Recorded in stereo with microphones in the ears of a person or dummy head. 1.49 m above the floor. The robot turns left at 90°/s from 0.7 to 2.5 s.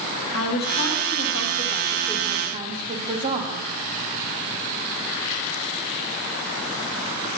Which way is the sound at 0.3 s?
135° left.